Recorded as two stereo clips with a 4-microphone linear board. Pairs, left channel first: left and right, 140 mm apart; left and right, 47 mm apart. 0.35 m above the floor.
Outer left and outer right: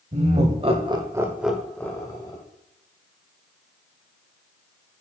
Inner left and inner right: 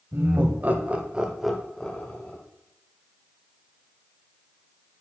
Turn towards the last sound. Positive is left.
turn(degrees=30)  # may be behind; listen again after turning